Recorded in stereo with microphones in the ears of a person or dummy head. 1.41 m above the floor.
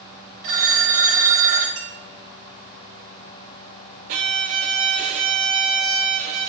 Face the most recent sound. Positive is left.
turn(degrees=-35)  # may be behind; listen again after turning